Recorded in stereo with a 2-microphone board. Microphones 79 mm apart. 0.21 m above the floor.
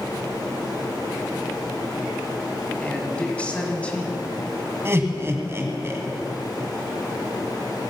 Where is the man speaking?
15° left (ahead or behind), 1.8 m.